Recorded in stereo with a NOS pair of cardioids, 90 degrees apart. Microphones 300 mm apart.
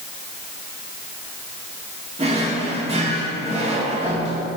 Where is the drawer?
25° right, 2.0 m.